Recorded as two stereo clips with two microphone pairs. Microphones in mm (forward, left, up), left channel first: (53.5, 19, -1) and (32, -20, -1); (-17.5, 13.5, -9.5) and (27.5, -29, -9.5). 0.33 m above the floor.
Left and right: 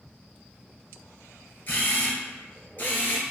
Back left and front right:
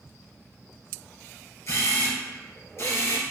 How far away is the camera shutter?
About 1.4 m.